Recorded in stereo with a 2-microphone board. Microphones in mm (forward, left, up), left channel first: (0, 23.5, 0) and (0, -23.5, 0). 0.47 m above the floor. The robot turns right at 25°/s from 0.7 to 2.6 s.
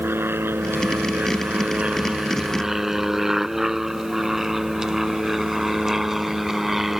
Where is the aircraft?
55° right (ahead or behind); by 7.0 s 10° right (ahead or behind).